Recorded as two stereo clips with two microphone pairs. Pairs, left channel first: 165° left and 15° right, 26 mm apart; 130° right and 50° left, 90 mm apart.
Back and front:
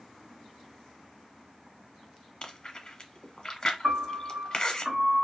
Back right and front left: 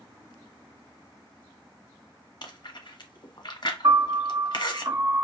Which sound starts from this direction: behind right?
Chewing, at 2.4 s.